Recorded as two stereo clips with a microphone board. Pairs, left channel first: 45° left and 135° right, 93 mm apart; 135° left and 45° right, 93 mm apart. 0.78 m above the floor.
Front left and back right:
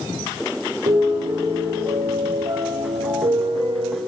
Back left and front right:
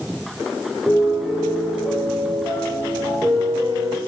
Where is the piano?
130° right, 5 m.